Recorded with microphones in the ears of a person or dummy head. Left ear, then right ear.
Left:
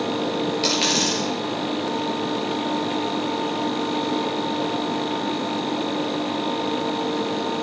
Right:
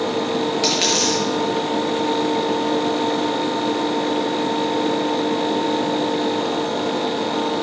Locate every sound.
0.6 s a dropped coin: centre (ahead or behind), 7.5 m